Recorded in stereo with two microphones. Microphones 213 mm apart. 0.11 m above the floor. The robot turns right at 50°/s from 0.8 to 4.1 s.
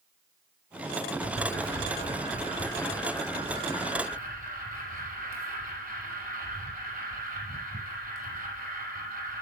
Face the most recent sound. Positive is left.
turn(degrees=-135)